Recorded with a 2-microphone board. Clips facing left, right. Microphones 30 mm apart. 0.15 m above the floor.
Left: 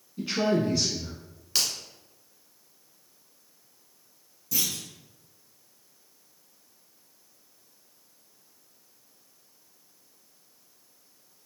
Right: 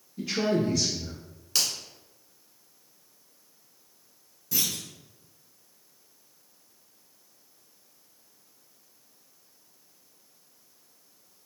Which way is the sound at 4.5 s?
20° right (ahead or behind).